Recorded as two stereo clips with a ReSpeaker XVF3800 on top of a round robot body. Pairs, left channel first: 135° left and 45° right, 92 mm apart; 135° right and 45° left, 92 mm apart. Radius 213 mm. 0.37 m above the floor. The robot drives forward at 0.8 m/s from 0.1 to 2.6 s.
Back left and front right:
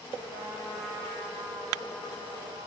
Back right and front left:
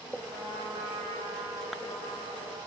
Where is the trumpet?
5° left, 9.5 m.